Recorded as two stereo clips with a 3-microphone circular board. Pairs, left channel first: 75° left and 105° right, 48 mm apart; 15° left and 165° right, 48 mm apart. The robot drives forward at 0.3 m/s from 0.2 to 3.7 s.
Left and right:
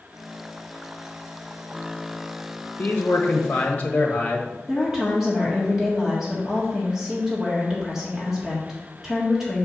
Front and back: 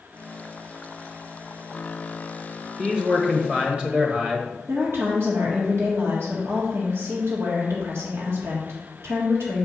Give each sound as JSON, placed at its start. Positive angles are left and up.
{"t": 2.8, "sound": "a man speaking", "azimuth_deg": 120, "distance_m": 1.2}
{"t": 4.7, "sound": "a woman speaking", "azimuth_deg": 175, "distance_m": 1.5}